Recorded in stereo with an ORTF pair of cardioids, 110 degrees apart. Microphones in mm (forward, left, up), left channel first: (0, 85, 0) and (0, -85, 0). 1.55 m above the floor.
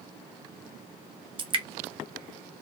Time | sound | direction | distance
1.4 | dripping | 30° right | 0.7 m